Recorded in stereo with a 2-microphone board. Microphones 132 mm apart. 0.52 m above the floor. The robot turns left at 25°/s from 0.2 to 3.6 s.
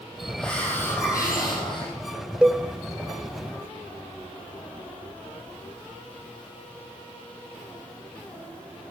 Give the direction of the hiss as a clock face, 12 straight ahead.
6 o'clock.